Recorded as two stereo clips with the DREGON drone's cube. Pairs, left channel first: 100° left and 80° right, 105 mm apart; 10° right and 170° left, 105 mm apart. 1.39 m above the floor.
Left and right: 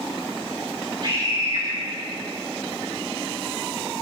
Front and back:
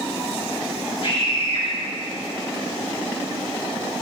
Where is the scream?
40° right, 4.5 m.